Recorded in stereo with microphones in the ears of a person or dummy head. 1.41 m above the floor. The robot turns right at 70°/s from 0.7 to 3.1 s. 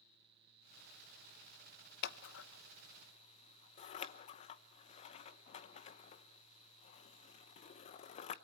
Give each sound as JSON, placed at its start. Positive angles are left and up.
{"t": 2.0, "sound": "scissors", "side_deg": 60, "distance_m": 0.9}